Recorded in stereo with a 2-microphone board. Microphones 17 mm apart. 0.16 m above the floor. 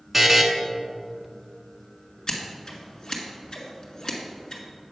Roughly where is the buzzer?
Centre.